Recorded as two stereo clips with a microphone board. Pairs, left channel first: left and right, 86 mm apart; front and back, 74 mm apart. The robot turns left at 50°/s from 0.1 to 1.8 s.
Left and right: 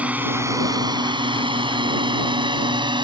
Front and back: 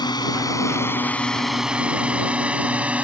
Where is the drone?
15° right; by 3.0 s 110° right.